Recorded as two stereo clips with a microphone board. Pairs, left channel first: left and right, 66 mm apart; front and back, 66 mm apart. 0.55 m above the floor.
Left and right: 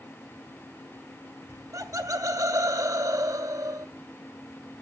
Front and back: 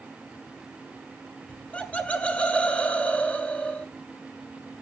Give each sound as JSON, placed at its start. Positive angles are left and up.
{"t": 1.5, "sound": "laughter", "azimuth_deg": -65, "distance_m": 1.6}